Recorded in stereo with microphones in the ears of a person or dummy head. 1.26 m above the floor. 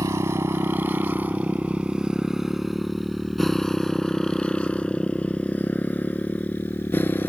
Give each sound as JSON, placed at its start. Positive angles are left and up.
{"t": 0.0, "sound": "a motorcycle", "side_deg": -15}